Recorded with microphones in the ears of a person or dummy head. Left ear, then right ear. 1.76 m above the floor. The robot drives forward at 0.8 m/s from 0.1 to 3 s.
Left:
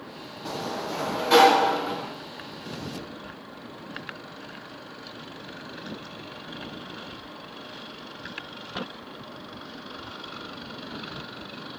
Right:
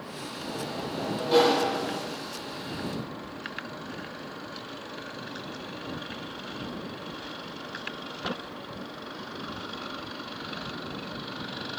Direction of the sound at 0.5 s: 60° left (ahead or behind).